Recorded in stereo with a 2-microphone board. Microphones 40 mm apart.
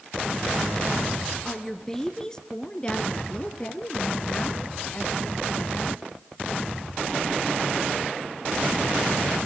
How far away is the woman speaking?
About 1.6 m.